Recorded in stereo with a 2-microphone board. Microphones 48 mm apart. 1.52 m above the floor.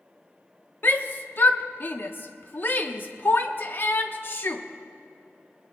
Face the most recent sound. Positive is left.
turn(degrees=45)  # may be behind; listen again after turning